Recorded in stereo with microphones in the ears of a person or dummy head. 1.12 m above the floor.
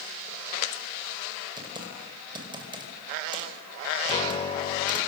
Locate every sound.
1.6 s typing on a keyboard: 25° right (ahead or behind), 4.5 m
4.0 s a piano: 35° left (ahead or behind), 2.5 m